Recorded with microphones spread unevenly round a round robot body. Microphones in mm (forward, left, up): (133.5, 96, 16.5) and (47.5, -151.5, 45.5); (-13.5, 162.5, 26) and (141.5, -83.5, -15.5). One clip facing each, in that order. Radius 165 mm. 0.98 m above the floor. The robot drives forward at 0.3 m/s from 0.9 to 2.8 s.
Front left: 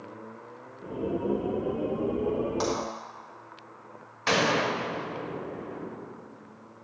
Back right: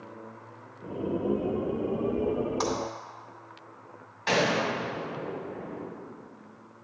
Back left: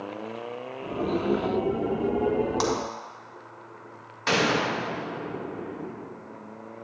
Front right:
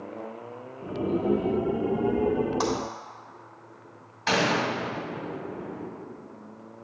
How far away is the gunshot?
About 2.5 m.